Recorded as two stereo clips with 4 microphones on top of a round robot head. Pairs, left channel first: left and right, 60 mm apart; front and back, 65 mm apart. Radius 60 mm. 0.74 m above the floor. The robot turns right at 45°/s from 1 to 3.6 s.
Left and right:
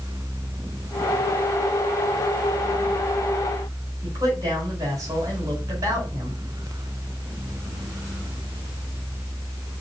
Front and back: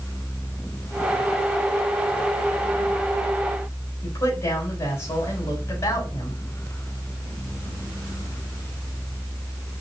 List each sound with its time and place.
4.0 s a woman speaking: 50° right, 3 m